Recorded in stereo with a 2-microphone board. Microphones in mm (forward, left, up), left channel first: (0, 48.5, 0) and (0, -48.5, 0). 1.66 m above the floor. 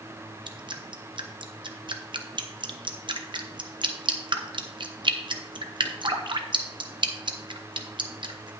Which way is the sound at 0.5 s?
55° right (ahead or behind).